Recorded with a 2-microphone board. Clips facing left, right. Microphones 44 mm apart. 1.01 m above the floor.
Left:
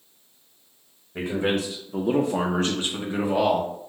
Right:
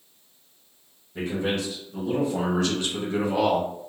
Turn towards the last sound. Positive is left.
turn(degrees=10)  # may be behind; listen again after turning